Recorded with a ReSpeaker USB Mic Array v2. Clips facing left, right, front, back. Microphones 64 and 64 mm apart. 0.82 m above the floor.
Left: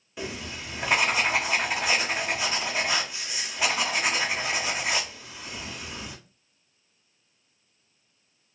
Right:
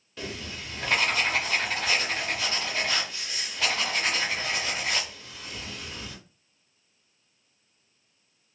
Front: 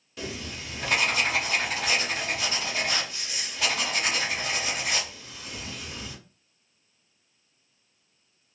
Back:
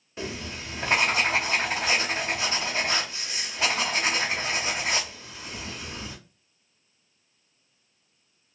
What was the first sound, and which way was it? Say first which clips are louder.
Writing: left 2 dB, back 2 dB; 150° left.